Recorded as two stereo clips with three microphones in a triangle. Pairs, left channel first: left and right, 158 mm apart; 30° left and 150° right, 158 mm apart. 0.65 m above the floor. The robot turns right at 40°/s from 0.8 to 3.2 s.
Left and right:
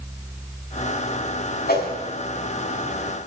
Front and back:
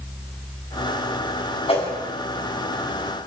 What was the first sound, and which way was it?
A whoosh, 80° left.